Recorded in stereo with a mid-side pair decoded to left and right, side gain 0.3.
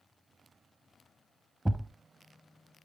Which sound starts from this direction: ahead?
A thud, at 1.6 s.